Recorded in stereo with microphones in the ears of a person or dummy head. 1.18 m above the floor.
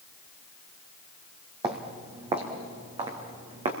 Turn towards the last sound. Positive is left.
turn(degrees=-40)  # may be behind; listen again after turning